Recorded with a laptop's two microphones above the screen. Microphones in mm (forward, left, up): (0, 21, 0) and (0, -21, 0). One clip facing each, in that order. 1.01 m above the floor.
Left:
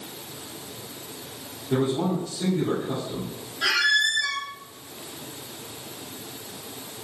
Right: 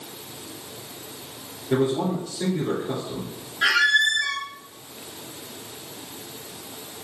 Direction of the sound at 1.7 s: 55° right (ahead or behind).